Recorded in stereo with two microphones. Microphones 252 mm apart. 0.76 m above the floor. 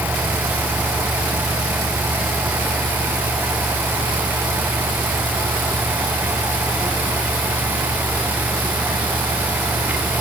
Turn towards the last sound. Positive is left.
No sound to turn to.